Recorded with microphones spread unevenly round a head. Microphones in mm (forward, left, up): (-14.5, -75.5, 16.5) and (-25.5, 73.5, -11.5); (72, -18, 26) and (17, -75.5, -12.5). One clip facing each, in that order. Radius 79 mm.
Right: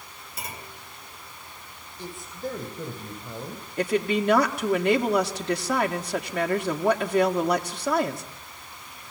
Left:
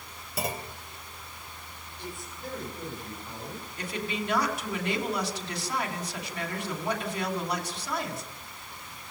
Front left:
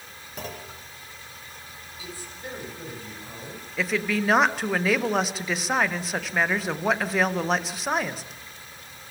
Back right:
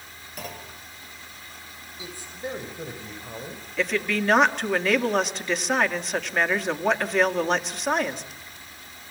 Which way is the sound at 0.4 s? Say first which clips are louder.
Left 7 dB, front left 1 dB; 120° left.